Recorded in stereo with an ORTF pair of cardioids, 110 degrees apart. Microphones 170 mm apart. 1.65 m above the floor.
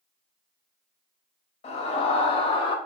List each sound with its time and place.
1.6 s a scream: 40° left, 3 m; by 2.8 s 30° left, 2.5 m